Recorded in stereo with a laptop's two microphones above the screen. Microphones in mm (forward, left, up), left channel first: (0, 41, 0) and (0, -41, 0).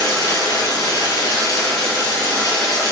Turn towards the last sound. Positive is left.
turn(degrees=45)  # may be behind; listen again after turning